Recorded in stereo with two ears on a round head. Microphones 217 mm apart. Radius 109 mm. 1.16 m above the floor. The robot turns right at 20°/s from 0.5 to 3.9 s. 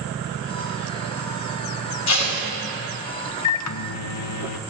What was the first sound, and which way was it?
Tape being pulled, 70° left (ahead or behind).